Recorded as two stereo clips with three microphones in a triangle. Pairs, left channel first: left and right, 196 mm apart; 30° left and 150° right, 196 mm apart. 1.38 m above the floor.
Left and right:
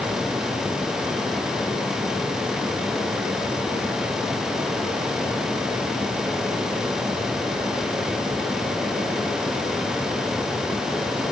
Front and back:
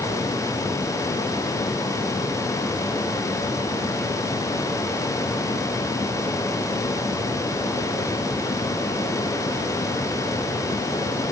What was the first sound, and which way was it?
Only background noise.